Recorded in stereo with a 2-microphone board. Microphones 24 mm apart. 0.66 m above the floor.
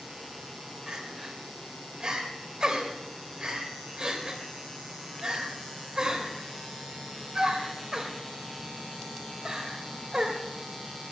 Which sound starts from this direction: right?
Crying, at 0.9 s.